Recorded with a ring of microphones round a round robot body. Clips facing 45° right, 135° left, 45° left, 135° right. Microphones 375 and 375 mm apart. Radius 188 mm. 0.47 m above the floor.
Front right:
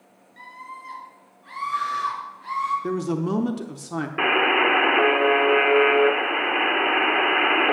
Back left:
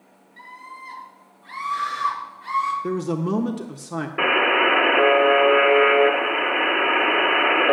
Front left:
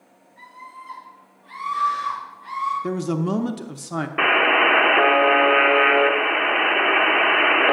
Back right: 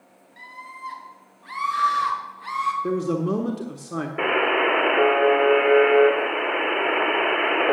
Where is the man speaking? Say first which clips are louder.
Even, back right 1 dB; 35° left, 0.7 m.